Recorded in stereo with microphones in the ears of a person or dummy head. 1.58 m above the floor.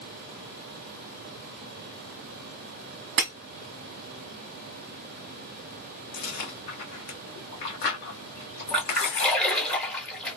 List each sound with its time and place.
3.2 s breaking glass: 50° right (ahead or behind), 0.9 m
6.1 s chewing: 55° left (ahead or behind), 1.0 m
8.7 s a splash: 10° left (ahead or behind), 1.1 m